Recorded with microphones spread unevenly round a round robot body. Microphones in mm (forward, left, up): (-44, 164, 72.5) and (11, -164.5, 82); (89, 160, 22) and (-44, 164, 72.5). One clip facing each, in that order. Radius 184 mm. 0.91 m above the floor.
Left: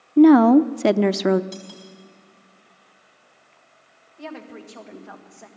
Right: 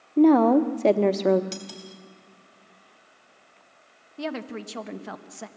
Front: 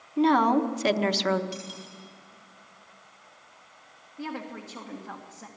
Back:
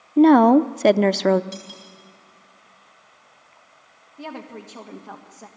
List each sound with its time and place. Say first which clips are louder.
0.2 s a woman speaking: left 5 dB, back 9 dB; 135° left, 0.8 m
1.5 s cutlery clinking: even, even; 125° right, 3.5 m
4.2 s a woman speaking: right 5 dB, back 1 dB; 95° right, 1.5 m